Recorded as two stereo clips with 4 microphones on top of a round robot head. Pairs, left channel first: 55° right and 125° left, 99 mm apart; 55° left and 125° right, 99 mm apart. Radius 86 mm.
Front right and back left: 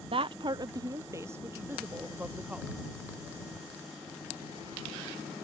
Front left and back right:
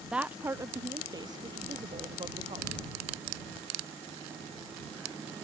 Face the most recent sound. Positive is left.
turn(degrees=-160)